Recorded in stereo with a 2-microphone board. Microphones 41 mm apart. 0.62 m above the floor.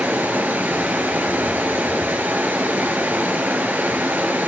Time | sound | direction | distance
0.0 | running water | 60° right (ahead or behind) | 1.7 m